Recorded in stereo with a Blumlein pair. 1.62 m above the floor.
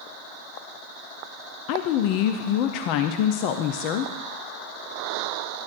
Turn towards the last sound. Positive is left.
turn(degrees=45)